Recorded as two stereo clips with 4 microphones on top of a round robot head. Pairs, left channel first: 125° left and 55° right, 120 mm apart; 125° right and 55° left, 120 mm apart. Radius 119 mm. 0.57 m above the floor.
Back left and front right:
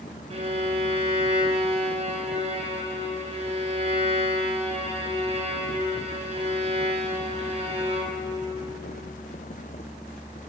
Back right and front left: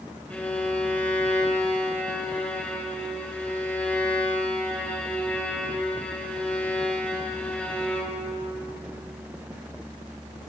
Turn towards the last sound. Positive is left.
turn(degrees=-50)